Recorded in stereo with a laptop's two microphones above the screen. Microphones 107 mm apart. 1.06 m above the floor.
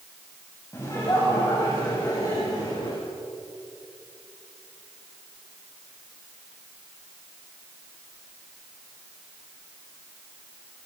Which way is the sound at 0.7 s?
30° left (ahead or behind).